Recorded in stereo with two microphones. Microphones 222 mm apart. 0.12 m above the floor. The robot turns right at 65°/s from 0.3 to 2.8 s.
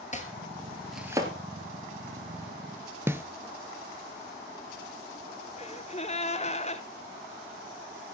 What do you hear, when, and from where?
0.1 s chopping: 35° left (ahead or behind), 2 m; by 1.3 s 20° right (ahead or behind), 2 m
3.1 s a snare drum: 10° right (ahead or behind), 0.6 m
5.6 s a gasp: 30° left (ahead or behind), 1.0 m